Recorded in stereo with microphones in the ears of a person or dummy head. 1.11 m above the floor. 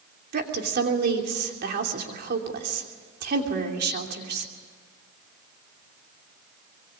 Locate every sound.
0.3 s a woman speaking: 50° right (ahead or behind), 3 m